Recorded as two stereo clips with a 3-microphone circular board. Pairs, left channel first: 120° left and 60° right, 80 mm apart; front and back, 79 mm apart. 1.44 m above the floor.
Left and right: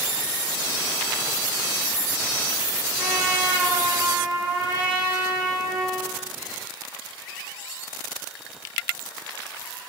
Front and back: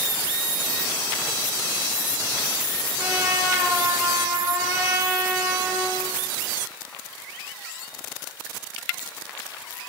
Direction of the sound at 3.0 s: 125° right.